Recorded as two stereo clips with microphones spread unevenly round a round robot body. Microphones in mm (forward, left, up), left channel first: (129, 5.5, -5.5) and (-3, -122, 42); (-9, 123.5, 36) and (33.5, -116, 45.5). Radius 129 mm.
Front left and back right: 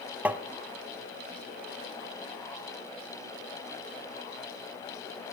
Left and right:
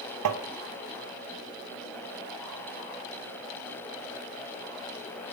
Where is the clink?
No clink in this recording.